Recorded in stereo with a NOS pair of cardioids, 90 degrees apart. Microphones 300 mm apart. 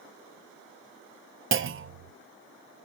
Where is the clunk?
45° right, 0.8 m.